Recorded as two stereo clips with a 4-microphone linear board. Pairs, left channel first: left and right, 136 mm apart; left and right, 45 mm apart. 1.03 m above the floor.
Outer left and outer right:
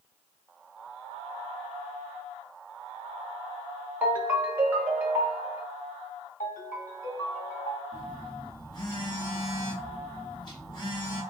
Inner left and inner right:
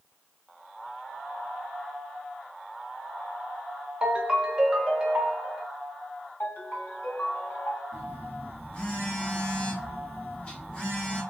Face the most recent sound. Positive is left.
turn(degrees=30)  # may be behind; listen again after turning